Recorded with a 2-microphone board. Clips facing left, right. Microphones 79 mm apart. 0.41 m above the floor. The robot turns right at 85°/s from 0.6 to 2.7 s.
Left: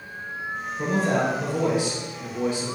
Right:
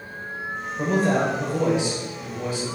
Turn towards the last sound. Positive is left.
turn(degrees=50)